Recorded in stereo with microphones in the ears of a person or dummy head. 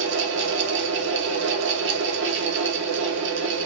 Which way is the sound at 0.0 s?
70° right (ahead or behind).